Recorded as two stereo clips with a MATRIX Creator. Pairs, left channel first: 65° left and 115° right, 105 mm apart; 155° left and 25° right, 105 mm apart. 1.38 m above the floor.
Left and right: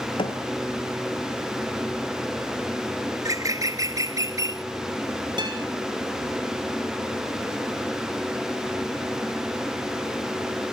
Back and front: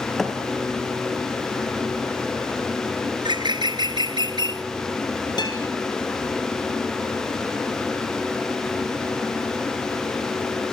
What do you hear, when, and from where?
0.2 s a thud: 70° left, 2.5 m
3.1 s a bird: 60° right, 0.7 m
5.4 s a guitar: 155° right, 5.5 m